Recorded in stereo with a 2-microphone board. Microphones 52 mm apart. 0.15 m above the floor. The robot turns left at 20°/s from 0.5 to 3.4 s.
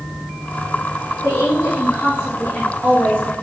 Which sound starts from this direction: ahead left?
A woman speaking, at 1.2 s.